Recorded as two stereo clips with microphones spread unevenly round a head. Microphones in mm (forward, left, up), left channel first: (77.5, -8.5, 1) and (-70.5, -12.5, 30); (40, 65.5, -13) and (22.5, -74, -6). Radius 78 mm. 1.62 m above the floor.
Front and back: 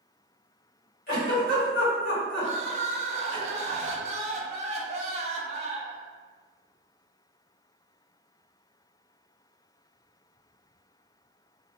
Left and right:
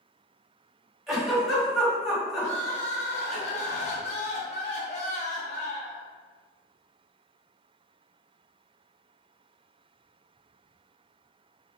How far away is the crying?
About 0.5 m.